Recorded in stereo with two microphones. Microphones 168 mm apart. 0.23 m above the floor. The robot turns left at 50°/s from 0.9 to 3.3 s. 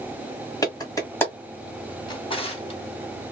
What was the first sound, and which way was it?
A clap, 20° left (ahead or behind).